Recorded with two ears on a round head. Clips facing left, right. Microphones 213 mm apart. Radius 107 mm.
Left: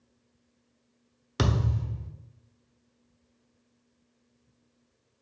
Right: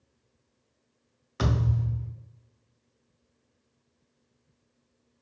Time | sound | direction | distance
1.4 | a thud | 55° left (ahead or behind) | 1.0 m